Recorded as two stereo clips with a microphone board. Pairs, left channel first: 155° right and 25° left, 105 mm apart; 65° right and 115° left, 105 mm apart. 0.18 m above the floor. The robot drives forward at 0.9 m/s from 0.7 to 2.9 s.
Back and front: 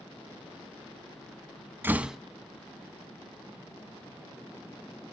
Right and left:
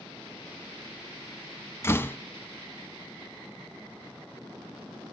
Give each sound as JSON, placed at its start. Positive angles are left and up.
{"t": 1.8, "sound": "a door slam", "azimuth_deg": -30, "distance_m": 0.8}